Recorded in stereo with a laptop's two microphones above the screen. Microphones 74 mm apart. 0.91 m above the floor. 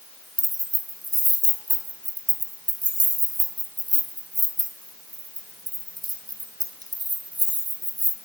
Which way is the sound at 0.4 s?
60° right (ahead or behind).